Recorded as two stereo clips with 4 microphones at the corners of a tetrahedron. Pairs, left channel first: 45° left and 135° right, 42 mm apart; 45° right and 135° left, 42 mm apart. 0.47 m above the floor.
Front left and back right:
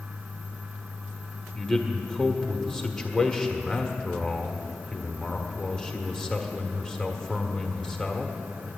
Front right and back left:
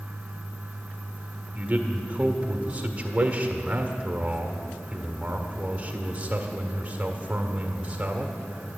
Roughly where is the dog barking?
I don't hear a dog barking.